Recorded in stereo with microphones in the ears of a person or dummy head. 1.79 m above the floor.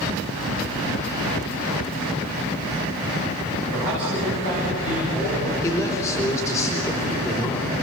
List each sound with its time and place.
3.7 s a man speaking: 40° left (ahead or behind), 8.5 m; by 5.5 s 35° left (ahead or behind), 8.5 m
5.6 s a man speaking: 15° left (ahead or behind), 4 m